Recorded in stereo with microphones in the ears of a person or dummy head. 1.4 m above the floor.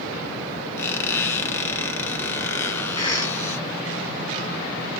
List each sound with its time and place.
0.8 s a squeak: 15° left (ahead or behind), 0.8 m
3.0 s a cough: 25° left (ahead or behind), 1.3 m